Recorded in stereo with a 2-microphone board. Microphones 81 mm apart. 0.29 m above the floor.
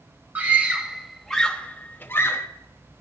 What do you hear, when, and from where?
0.3 s a scream: 20° right (ahead or behind), 1.6 m; by 2.5 s 35° left (ahead or behind), 1.5 m